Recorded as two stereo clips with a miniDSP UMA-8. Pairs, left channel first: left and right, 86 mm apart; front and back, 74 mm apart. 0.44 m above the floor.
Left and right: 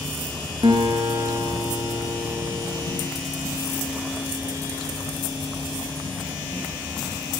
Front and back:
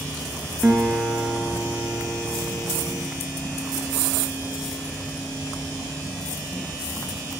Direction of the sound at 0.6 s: 105° right.